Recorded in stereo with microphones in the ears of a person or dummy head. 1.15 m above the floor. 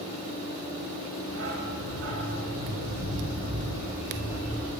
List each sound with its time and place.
1.3 s a dog barking: 80° right, 3 m; by 4.7 s 60° right (ahead or behind), 4 m